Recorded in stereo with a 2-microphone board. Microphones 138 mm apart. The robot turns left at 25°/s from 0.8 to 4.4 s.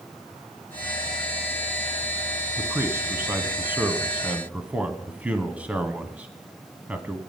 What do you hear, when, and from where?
2.6 s a man speaking: 20° right (ahead or behind), 1.0 m; by 7.2 s 10° right (ahead or behind), 1.0 m